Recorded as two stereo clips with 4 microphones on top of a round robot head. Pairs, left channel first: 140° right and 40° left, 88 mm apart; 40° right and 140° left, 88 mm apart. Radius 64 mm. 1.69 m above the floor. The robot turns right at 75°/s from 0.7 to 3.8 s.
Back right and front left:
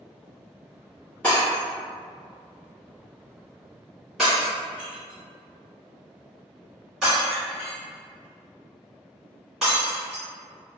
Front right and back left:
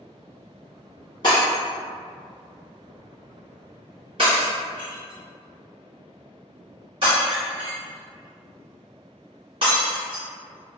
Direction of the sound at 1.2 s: 60° right.